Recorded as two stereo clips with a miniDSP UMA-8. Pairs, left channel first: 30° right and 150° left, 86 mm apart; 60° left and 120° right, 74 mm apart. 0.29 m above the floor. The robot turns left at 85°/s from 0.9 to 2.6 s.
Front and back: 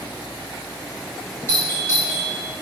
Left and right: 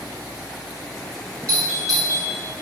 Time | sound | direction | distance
1.5 | a doorbell | 5° right | 1.6 m